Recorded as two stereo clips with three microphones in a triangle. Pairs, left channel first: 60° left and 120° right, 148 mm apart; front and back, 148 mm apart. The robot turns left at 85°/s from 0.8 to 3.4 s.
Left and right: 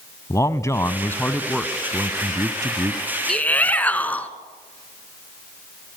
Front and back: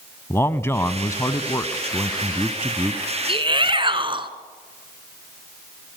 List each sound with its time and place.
0.3 s a man speaking: 40° left, 1.0 m; by 3.0 s 150° right, 1.0 m
3.3 s a shout: 145° left, 1.9 m; by 4.3 s 135° left, 1.9 m